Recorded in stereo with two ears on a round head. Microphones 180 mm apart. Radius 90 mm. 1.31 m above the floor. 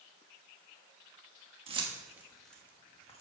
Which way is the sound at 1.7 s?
30° right (ahead or behind).